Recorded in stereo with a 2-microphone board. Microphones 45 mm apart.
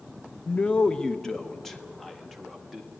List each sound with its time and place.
0.5 s a man speaking: 35° left (ahead or behind), 0.5 m; by 2.9 s centre (ahead or behind), 2 m